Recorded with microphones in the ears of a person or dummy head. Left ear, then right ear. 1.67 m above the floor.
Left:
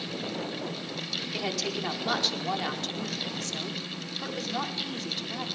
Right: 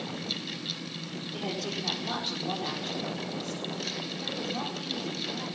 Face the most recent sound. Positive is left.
turn(degrees=65)  # may be behind; listen again after turning